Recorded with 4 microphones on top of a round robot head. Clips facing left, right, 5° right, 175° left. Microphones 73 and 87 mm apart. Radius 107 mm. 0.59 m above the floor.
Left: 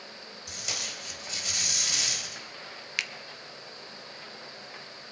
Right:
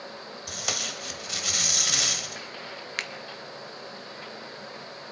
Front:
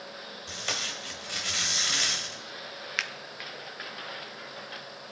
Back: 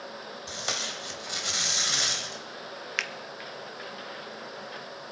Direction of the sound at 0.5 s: 110° right.